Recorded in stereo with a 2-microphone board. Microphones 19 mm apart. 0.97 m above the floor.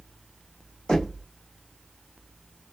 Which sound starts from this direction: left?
Knocking, at 0.9 s.